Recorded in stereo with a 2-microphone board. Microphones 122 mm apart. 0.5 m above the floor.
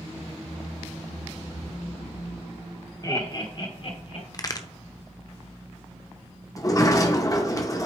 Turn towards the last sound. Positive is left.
turn(degrees=30)  # may be behind; listen again after turning